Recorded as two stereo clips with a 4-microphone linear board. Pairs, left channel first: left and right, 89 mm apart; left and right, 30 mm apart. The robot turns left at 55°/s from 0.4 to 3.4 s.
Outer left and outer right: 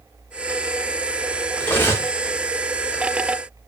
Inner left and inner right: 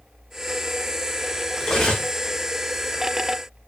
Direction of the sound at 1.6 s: 15° left (ahead or behind).